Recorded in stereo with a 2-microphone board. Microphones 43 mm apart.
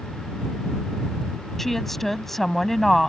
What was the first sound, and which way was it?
A woman speaking, 5° left (ahead or behind).